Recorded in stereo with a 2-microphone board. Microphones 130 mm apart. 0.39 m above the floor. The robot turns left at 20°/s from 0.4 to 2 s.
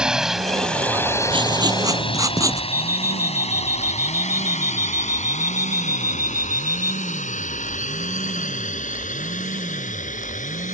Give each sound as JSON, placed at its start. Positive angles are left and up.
{"t": 0.0, "sound": "a drone", "side_deg": -5}
{"t": 1.3, "sound": "writing", "side_deg": -40}
{"t": 2.7, "sound": "an alarm clock", "side_deg": 25}